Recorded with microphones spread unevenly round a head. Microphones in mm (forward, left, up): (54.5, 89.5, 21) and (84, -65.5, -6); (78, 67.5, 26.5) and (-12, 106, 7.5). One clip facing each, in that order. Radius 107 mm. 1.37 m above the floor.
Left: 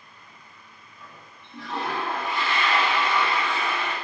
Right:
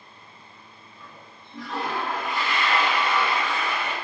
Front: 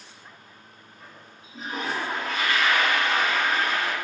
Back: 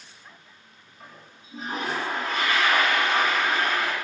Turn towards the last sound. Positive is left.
turn(degrees=125)